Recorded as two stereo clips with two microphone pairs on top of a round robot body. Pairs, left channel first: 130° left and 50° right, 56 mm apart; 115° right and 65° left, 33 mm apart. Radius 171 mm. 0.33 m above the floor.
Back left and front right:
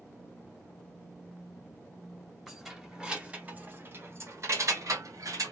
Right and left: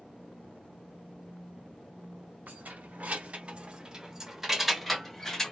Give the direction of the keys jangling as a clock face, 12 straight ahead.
11 o'clock.